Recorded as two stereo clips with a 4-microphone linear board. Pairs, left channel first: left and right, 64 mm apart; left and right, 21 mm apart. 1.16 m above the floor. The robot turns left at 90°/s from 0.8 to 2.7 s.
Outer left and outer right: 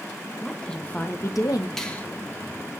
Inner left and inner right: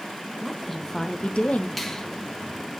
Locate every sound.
0.4 s a woman speaking: 165° left, 1.3 m; by 1.7 s 85° left, 1.3 m
1.8 s a finger snap: 5° left (ahead or behind), 1.6 m; by 2.0 s 30° left (ahead or behind), 1.6 m